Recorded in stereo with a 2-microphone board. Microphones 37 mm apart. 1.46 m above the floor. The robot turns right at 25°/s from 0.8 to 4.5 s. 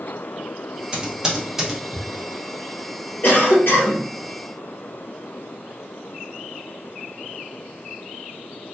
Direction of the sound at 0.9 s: 25° right (ahead or behind).